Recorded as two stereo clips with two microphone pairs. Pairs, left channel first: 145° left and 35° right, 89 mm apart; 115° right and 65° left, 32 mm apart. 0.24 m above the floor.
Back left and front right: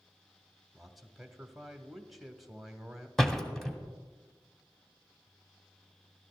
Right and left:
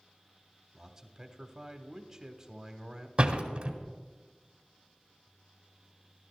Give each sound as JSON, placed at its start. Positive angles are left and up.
{"t": 0.7, "sound": "a man speaking", "azimuth_deg": 45, "distance_m": 1.0}
{"t": 3.2, "sound": "a door slam", "azimuth_deg": 55, "distance_m": 1.3}